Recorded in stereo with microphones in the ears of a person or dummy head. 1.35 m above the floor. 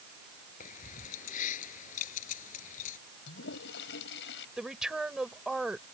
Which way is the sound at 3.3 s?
65° left (ahead or behind).